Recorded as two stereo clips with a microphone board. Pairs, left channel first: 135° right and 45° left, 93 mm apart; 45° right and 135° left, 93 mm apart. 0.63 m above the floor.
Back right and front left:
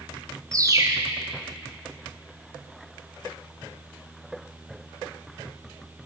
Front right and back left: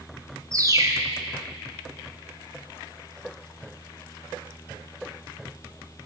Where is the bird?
90° left, 0.6 m.